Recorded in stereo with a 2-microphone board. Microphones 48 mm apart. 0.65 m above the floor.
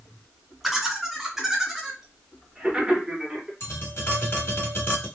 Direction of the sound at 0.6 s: Centre (ahead or behind).